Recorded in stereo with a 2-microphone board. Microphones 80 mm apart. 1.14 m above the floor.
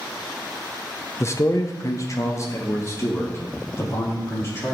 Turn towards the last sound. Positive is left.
turn(degrees=35)  # may be behind; listen again after turning